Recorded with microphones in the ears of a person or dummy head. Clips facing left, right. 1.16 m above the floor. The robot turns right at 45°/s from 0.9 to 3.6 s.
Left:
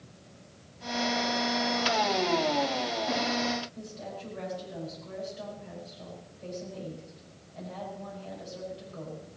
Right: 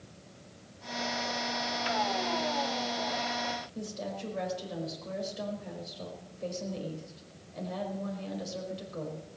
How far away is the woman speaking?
About 4.5 m.